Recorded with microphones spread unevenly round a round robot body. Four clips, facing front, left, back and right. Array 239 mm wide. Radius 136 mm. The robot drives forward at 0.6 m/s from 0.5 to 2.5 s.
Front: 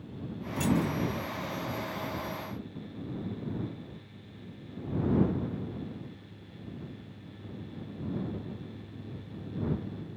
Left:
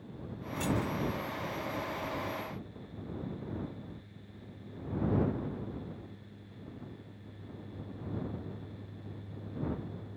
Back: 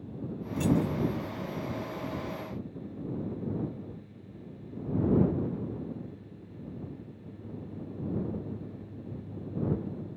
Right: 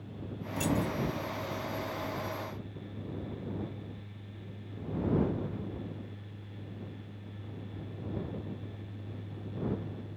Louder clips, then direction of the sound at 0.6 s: Right 2 dB, back 1 dB; 85° right.